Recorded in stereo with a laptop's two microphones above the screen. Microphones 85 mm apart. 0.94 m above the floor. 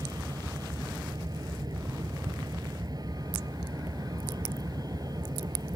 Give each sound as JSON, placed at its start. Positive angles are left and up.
{"t": 0.0, "sound": "a vehicle", "side_deg": -50}